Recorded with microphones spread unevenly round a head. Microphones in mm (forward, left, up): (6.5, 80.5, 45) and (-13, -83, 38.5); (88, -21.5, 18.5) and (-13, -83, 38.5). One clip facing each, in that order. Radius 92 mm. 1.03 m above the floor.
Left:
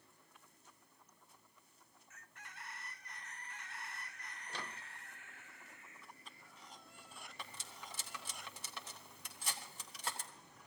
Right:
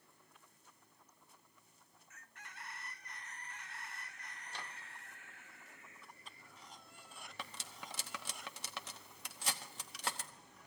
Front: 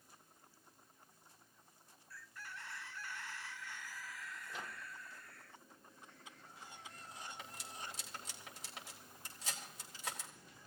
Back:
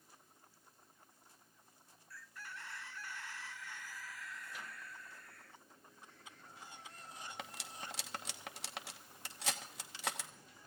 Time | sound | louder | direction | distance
4.5 | a microwave | left 3 dB, front 2 dB | 105° left | 0.6 m
7.4 | cutlery clinking | right 3 dB, back 2 dB | 125° right | 1.1 m